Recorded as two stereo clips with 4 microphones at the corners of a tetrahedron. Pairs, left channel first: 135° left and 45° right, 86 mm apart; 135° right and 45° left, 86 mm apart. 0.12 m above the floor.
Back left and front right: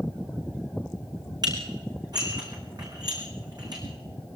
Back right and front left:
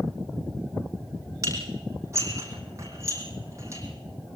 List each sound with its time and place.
1.4 s dishes clattering: 10° right, 4.5 m